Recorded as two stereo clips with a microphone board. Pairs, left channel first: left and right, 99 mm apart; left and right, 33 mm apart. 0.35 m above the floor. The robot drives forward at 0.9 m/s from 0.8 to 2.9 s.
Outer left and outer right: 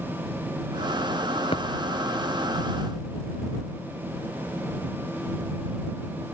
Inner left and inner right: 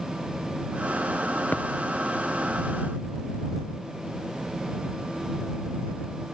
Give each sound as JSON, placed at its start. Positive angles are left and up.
{"t": 1.5, "sound": "a thud", "side_deg": 70}